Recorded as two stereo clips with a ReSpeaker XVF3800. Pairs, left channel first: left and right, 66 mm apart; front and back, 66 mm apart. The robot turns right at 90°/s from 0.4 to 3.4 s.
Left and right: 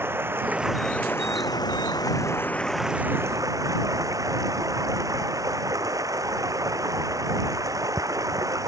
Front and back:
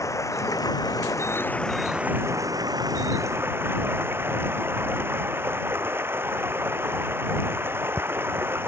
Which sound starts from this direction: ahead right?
Running water, at 0.0 s.